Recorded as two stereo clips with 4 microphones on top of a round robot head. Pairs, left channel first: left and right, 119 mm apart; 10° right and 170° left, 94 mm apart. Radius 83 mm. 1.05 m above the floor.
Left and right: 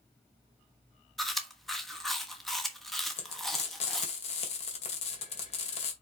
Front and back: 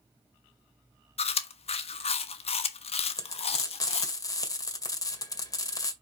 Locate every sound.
1.2 s chewing: straight ahead, 1.1 m
3.2 s frying: 40° left, 2 m